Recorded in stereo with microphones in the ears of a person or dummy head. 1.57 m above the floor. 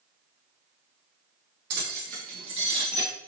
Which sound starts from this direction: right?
Keys jangling, at 1.7 s.